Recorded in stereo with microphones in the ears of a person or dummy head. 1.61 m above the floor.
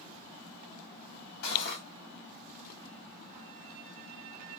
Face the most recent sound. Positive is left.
turn(degrees=65)  # may be behind; listen again after turning